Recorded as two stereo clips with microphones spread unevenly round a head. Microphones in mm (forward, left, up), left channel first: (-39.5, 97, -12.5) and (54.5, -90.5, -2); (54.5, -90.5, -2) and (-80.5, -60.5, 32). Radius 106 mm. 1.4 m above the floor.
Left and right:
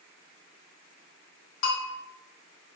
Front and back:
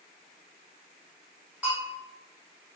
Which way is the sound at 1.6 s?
85° left.